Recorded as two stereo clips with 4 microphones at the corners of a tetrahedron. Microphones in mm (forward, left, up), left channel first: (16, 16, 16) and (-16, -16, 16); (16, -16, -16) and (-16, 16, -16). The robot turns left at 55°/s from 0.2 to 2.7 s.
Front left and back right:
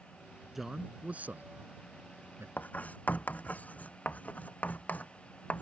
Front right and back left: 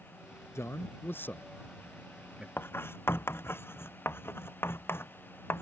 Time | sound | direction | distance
0.6 | a man speaking | 45° right | ?
2.6 | writing | straight ahead | ?